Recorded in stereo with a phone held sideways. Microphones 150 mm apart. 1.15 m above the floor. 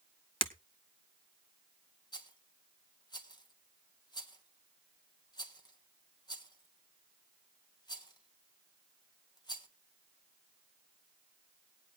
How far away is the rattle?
About 1.2 m.